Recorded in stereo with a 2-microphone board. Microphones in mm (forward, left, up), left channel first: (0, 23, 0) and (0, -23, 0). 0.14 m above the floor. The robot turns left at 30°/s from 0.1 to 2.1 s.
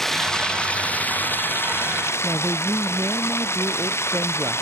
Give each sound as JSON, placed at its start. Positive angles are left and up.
{"t": 0.0, "sound": "running water", "azimuth_deg": 170}
{"t": 2.2, "sound": "a woman speaking", "side_deg": -65}